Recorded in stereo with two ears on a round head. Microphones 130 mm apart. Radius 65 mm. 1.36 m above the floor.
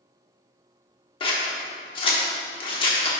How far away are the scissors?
About 1.1 m.